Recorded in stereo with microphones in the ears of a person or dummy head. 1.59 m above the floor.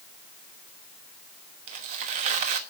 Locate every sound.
1.7 s tearing paper: 35° right (ahead or behind), 1.2 m